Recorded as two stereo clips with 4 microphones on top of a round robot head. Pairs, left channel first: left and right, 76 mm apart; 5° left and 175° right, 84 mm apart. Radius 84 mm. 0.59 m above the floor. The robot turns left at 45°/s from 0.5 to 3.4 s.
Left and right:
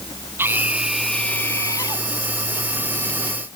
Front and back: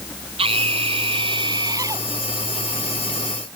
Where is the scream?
160° right; by 2.1 s 130° left.